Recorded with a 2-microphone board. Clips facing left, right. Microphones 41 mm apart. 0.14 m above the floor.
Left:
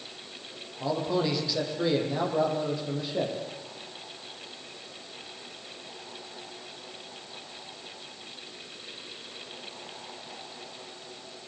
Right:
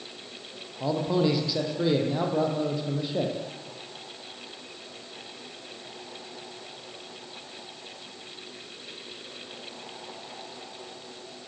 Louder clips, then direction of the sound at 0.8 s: Right 3 dB; 5° right (ahead or behind).